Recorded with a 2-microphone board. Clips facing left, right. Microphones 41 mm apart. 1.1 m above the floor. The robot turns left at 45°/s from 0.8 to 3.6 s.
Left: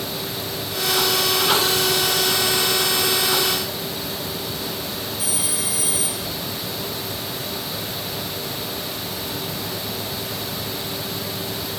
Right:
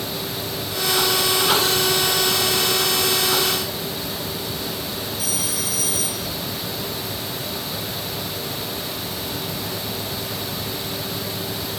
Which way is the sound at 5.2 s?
15° left (ahead or behind).